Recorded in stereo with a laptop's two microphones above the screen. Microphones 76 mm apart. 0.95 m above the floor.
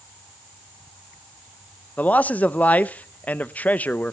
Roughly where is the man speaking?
Left.